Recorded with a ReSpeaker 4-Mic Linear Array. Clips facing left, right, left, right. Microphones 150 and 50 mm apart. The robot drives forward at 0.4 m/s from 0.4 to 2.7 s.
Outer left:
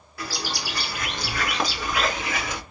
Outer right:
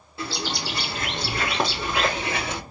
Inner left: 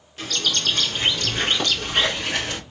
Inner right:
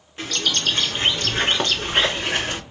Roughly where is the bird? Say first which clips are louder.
Outer right 2 dB, inner right 1 dB; right.